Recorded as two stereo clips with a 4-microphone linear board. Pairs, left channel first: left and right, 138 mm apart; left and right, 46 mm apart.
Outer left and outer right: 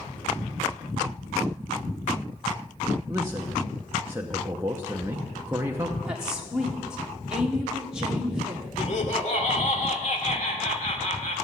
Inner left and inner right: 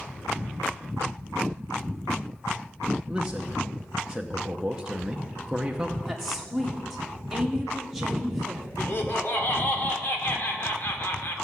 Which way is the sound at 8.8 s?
55° left (ahead or behind).